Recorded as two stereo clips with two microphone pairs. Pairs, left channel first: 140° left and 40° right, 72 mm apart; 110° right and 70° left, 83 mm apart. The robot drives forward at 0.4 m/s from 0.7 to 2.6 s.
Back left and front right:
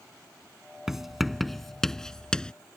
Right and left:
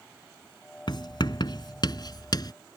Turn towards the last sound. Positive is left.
turn(degrees=-140)